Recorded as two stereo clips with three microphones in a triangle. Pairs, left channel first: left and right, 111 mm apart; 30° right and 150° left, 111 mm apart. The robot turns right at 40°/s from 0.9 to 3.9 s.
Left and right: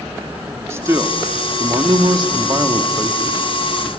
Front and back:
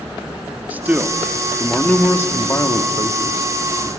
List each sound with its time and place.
0.7 s a man speaking: 140° right, 1.2 m; by 3.9 s 25° right, 1.2 m